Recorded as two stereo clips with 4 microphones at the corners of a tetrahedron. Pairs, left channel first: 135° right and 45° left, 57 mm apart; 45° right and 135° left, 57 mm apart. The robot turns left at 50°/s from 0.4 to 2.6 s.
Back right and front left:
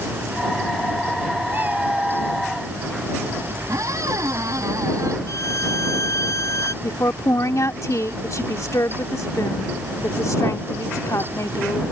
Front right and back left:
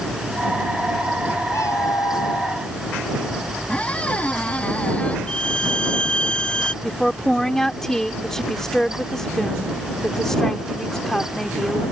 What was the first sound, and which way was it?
A cat meowing, 5° right.